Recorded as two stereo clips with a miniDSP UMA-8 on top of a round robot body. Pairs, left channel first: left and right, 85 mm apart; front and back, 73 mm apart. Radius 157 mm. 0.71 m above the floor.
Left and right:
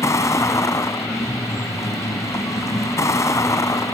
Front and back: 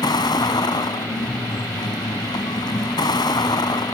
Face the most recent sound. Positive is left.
turn(degrees=35)